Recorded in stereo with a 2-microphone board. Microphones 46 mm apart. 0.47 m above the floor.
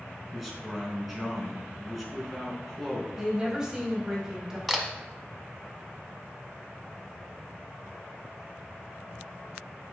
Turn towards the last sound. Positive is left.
turn(degrees=0)  # may be behind; listen again after turning